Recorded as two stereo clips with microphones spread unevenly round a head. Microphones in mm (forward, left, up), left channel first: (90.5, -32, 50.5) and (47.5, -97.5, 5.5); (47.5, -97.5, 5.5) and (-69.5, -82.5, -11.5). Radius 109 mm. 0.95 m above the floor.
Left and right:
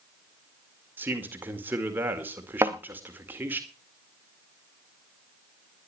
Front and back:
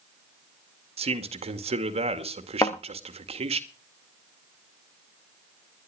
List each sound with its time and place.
1.0 s a man speaking: 170° right, 2.0 m
2.6 s a thud: 50° right, 1.4 m